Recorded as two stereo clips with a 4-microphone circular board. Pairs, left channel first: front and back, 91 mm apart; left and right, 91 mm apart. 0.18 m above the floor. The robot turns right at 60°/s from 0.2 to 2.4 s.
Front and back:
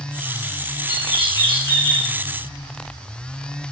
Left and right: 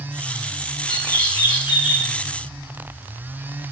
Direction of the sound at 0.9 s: 5° left.